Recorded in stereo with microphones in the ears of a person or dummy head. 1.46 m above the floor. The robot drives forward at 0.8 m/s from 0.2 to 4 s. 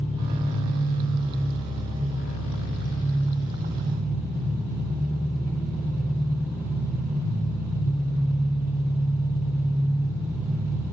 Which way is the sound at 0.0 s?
40° left (ahead or behind).